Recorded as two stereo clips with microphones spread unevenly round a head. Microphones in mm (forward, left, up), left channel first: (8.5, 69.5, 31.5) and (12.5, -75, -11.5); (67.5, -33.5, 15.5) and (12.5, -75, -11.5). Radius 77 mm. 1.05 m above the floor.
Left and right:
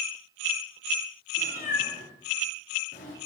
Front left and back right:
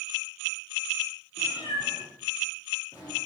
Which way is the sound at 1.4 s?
65° left.